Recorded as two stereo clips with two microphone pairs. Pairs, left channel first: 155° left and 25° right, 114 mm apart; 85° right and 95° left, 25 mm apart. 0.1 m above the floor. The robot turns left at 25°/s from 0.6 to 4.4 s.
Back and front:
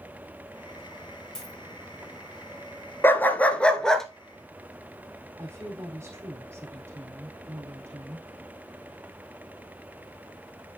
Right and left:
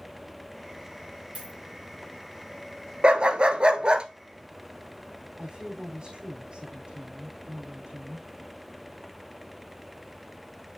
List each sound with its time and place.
1.4 s a dropped coin: 75° left, 2.5 m; by 1.6 s 70° left, 2.5 m
3.0 s a dog barking: 100° left, 0.7 m; by 4.1 s 75° left, 0.7 m
5.4 s a woman speaking: 45° left, 5 m